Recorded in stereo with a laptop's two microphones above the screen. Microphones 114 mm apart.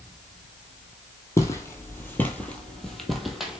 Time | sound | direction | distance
1.4 | footsteps | 25° left (ahead or behind) | 1.2 m